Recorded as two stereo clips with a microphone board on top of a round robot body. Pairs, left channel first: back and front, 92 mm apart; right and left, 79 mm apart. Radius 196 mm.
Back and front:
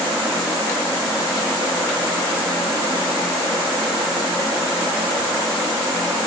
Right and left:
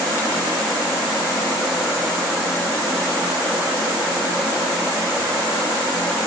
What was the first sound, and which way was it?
Only background noise.